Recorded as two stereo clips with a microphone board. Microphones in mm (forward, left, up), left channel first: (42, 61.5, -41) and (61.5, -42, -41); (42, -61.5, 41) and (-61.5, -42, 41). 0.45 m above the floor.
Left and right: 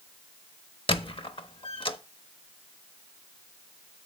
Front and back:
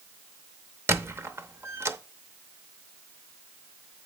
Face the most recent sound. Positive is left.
turn(degrees=110)